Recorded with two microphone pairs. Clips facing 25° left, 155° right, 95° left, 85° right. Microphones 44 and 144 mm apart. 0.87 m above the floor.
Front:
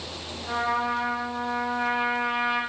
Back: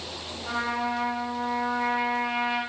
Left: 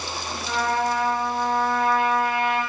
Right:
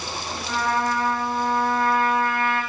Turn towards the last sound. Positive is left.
turn(degrees=-125)